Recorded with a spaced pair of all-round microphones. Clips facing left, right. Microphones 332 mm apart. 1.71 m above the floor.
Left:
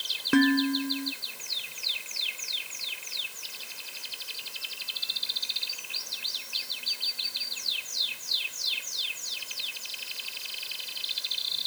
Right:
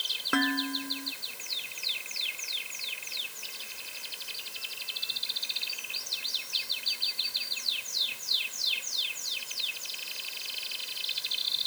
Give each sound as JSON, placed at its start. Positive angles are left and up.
{"t": 0.3, "sound": "dishes clattering", "side_deg": 35}